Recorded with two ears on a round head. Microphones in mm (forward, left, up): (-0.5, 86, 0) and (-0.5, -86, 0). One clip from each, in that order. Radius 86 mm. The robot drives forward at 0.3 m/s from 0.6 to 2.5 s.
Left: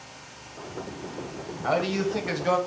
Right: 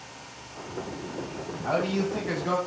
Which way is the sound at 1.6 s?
60° left (ahead or behind).